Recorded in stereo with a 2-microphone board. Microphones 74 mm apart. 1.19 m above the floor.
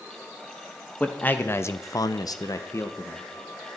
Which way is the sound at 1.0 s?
20° left (ahead or behind).